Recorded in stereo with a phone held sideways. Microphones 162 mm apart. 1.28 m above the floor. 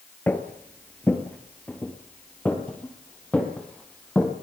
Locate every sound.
0.3 s footsteps: 10° left (ahead or behind), 1.6 m